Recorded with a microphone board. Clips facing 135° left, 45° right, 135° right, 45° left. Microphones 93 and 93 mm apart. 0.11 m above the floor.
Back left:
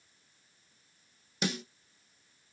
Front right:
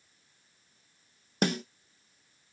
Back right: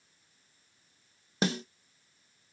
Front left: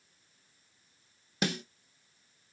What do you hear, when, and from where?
1.4 s a snare drum: 75° right, 1.2 m